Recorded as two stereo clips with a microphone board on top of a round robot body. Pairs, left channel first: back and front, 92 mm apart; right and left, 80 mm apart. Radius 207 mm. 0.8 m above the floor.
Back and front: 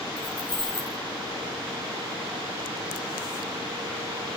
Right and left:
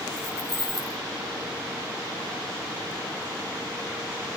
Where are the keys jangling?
140° right, 4 m.